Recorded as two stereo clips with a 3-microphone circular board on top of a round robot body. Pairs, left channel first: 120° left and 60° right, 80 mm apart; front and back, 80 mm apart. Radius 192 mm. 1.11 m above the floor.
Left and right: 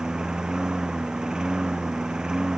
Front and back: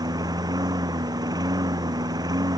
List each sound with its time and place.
0.0 s a lawn mower: 140° right